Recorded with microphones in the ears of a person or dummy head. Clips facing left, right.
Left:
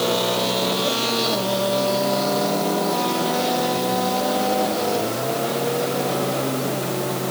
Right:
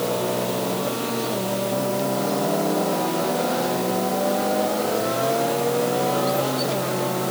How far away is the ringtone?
I don't hear a ringtone.